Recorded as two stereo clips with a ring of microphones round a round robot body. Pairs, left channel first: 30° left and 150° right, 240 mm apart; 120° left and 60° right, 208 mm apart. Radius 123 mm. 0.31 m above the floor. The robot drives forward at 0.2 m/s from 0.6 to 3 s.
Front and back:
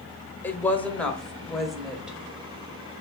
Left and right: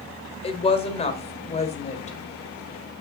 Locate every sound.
0.4 s a woman speaking: 105° left, 1.3 m; by 2.2 s 130° left, 1.4 m